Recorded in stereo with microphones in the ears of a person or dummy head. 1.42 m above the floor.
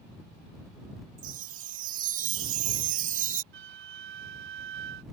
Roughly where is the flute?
Right.